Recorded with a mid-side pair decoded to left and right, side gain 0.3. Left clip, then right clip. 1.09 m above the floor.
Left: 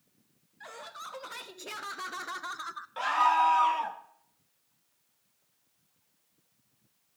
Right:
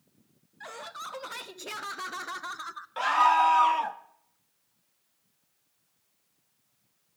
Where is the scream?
35° right, 1.5 m.